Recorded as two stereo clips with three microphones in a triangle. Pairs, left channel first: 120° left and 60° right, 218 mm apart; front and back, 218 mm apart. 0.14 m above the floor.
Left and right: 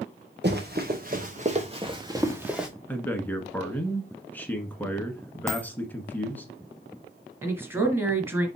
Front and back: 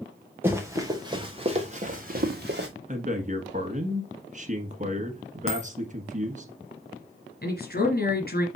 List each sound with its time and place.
0.4 s running footsteps: 100° right, 2 m; by 2.7 s 150° right, 1.5 m
2.9 s a man speaking: 165° right, 1.4 m
5.5 s a dropped coin: 15° left, 1.7 m
7.4 s a woman speaking: 15° left, 1.9 m